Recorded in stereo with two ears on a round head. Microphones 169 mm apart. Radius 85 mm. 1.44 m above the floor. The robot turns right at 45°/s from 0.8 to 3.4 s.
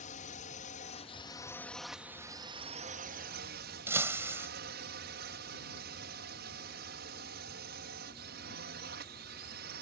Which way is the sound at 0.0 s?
130° left.